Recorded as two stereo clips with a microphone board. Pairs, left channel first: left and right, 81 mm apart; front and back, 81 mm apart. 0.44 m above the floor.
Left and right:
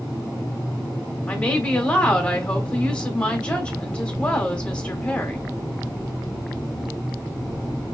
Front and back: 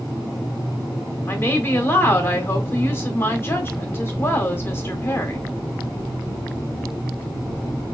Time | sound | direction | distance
1.3 | a woman speaking | 30° left | 1.0 m